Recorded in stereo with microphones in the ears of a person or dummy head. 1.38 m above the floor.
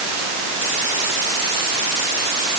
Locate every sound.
Only background noise.